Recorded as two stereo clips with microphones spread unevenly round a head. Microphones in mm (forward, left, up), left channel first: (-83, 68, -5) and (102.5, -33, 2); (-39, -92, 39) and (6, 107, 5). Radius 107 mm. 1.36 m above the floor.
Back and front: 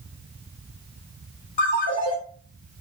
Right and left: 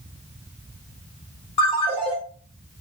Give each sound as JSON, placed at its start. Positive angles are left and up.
{"t": 1.6, "sound": "a ringtone", "azimuth_deg": -155, "distance_m": 1.7}